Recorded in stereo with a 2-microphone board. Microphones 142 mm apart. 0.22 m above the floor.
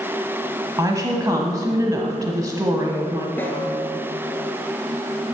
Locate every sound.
0.8 s a woman speaking: 25° right (ahead or behind), 1.1 m
3.4 s a snare drum: 15° left (ahead or behind), 1.9 m